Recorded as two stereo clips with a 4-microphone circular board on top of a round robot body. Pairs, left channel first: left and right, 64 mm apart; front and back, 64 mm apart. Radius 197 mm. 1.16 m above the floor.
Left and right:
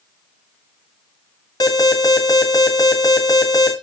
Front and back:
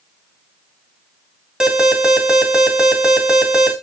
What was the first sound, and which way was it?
An alarm, 105° left.